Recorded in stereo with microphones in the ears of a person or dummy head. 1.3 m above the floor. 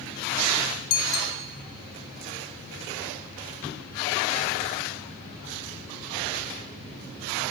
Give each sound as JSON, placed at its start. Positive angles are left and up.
{"t": 0.9, "sound": "a bicycle bell", "side_deg": 75, "distance_m": 2.5}